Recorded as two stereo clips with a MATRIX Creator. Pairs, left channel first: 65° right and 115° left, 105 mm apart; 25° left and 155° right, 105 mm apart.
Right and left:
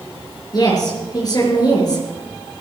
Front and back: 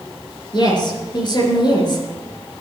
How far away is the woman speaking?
About 4 m.